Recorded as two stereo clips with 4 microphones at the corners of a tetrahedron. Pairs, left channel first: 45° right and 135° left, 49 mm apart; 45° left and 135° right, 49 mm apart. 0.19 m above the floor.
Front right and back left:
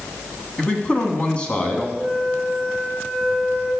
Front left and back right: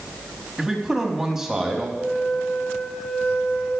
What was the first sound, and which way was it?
A man speaking, 70° right.